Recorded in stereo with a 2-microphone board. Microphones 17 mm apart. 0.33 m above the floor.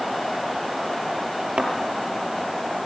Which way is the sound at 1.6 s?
65° right (ahead or behind).